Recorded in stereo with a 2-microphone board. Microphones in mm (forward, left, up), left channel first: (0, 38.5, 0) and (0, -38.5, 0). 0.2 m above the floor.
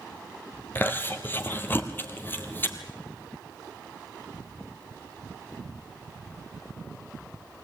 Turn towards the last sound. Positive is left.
turn(degrees=25)  # may be behind; listen again after turning